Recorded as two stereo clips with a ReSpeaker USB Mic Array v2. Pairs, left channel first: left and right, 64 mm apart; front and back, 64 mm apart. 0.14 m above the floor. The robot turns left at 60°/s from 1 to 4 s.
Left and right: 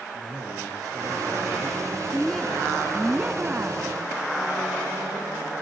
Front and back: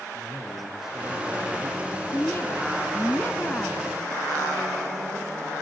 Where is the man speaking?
100° right, 8 m; by 2.8 s 155° left, 8 m.